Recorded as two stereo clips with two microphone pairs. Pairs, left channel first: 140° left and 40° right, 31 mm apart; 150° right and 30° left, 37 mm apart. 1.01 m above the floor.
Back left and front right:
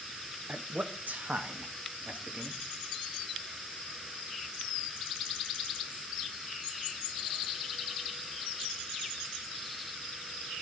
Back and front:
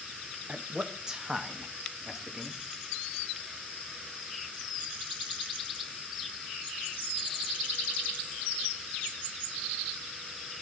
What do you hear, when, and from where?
0.5 s a man speaking: 30° right, 1.4 m; by 2.6 s 50° right, 2.5 m